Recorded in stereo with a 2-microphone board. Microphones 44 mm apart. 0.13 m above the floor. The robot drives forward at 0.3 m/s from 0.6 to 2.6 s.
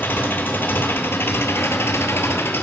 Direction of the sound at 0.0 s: 50° left (ahead or behind).